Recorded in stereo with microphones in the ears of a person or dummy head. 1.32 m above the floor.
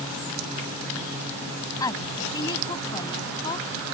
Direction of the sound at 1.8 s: 25° left (ahead or behind).